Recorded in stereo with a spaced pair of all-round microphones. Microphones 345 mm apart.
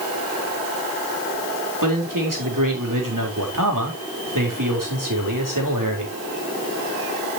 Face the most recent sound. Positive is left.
turn(degrees=-65)  # may be behind; listen again after turning